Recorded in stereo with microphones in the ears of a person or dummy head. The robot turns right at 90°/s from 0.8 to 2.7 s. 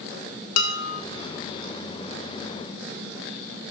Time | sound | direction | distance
0.6 | dishes clattering | 75° left (ahead or behind) | 1.5 m